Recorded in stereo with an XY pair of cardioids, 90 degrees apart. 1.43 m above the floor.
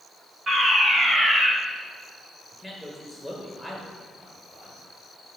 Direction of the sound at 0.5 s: 40° right.